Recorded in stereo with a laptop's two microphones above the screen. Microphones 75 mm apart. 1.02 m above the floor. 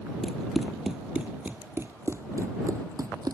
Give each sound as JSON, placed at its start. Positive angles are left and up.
{"t": 0.2, "sound": "running footsteps", "side_deg": 10}